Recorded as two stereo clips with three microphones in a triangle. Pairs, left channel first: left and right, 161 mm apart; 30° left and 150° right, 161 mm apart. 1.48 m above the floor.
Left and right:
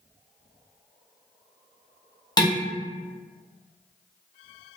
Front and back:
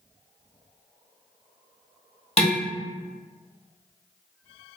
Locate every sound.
2.4 s dishes clattering: 45° left, 0.9 m